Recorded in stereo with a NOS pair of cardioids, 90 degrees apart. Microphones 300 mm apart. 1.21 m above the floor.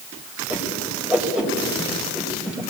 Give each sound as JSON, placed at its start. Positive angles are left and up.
{"t": 0.5, "sound": "a whoosh", "azimuth_deg": -5, "distance_m": 4.0}